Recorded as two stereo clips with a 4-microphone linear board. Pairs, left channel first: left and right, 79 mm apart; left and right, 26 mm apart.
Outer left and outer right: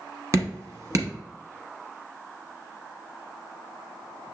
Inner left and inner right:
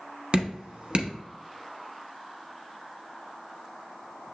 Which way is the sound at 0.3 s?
45° right (ahead or behind).